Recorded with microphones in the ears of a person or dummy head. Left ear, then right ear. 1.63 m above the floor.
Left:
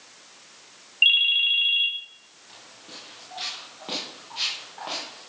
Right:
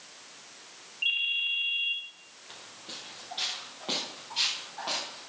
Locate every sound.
1.0 s a ringtone: 50° left (ahead or behind), 2.5 m
2.5 s footsteps: 10° right (ahead or behind), 3.5 m; by 5.3 s 5° left (ahead or behind), 5 m